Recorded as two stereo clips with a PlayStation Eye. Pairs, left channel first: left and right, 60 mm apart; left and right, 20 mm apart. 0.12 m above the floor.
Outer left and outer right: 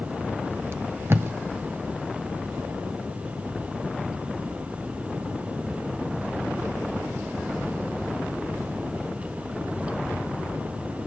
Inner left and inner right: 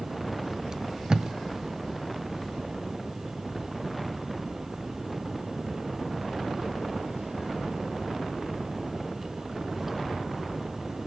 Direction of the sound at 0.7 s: 45° right (ahead or behind).